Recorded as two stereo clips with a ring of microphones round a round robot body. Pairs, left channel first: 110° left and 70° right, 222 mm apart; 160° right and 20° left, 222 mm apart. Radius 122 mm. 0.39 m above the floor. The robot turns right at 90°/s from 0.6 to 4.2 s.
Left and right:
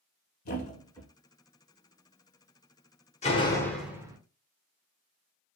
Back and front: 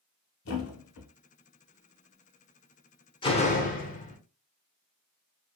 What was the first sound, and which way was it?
A thud, 165° left.